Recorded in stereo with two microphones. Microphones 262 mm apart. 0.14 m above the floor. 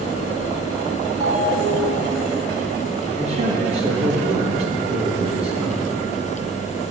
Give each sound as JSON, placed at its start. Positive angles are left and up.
{"t": 1.2, "sound": "a ringtone", "side_deg": -25, "distance_m": 0.8}
{"t": 3.2, "sound": "a man speaking", "side_deg": -25, "distance_m": 2.0}